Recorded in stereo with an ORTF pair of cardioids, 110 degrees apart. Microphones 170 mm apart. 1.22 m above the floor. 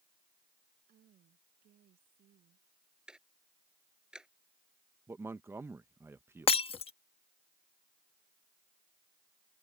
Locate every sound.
0.9 s a woman speaking: 55° right
3.1 s ticking: 5° right
5.1 s a man speaking: 15° right
6.5 s breaking glass: 35° left